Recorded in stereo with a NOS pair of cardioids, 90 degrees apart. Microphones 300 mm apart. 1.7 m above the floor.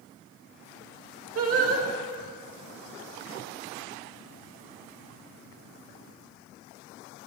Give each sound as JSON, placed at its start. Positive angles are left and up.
{"t": 1.4, "sound": "singing", "azimuth_deg": -50, "distance_m": 2.0}